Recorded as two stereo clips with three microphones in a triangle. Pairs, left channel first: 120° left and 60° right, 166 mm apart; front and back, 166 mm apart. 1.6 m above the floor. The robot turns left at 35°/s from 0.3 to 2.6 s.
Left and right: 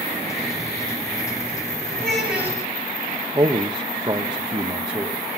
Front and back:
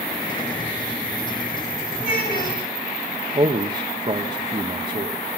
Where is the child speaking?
35° left, 9 m; by 2.6 s 15° left, 9 m.